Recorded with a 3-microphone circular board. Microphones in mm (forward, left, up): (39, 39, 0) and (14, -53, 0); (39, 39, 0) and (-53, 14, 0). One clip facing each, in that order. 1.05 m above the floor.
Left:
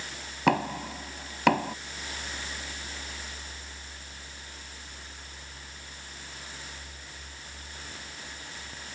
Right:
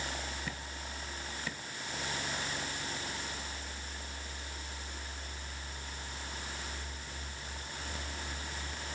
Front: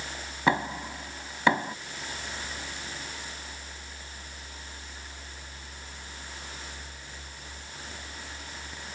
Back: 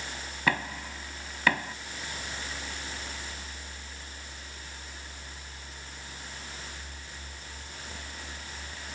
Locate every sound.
0.5 s knocking: 85° left